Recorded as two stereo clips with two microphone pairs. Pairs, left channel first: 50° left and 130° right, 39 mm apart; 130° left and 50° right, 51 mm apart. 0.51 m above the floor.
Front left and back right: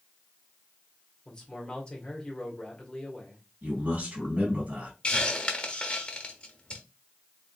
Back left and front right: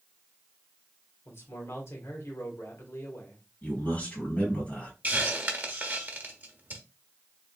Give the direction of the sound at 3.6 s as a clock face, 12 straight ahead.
6 o'clock.